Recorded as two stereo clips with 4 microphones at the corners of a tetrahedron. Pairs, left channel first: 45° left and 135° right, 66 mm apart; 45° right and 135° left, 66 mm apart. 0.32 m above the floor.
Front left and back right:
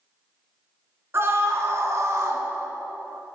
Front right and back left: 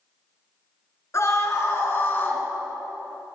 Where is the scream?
85° right, 3.5 m; by 2.4 s 105° right, 3 m.